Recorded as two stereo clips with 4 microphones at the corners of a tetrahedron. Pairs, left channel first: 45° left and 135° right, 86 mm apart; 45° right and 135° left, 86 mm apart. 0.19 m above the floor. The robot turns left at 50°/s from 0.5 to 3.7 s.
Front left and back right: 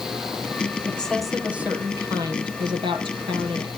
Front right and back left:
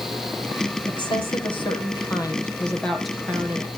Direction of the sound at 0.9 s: 25° right.